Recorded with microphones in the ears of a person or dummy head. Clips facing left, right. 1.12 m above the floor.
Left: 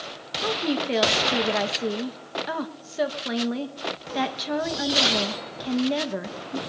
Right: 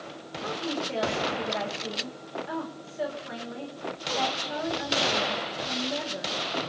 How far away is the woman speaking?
About 1.3 m.